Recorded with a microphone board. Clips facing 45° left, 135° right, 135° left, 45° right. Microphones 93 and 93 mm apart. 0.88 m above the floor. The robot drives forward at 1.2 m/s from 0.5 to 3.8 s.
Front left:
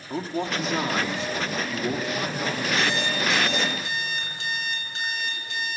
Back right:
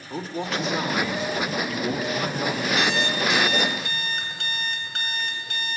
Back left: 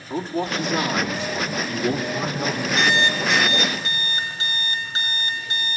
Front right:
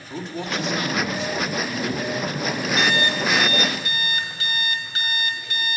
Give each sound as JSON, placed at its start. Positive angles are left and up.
{"t": 0.1, "sound": "a man speaking", "azimuth_deg": 85, "distance_m": 2.0}
{"t": 2.8, "sound": "an alarm clock", "azimuth_deg": -160, "distance_m": 2.0}